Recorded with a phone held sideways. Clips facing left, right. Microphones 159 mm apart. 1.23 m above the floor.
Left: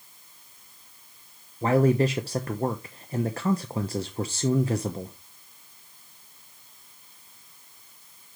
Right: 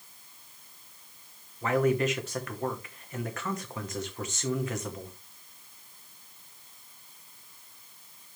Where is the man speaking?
35° left (ahead or behind), 0.8 m.